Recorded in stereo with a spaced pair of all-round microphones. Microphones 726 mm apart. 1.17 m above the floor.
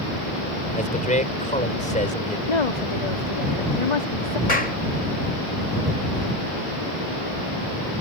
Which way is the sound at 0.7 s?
10° left (ahead or behind).